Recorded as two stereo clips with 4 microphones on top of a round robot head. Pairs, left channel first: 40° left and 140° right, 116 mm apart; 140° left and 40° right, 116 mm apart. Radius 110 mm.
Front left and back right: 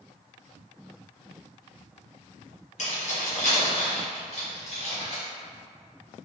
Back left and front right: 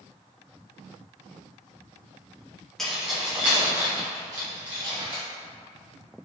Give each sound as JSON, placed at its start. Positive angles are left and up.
{"t": 2.8, "sound": "keys jangling", "azimuth_deg": 55, "distance_m": 1.6}